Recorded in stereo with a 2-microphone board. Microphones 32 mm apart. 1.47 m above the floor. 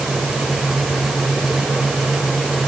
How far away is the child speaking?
I don't hear a child speaking.